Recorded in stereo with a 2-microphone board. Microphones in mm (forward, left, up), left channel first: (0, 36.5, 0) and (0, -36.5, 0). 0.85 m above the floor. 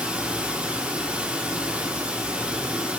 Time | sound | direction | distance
0.0 | running water | 15° right (ahead or behind) | 1.2 m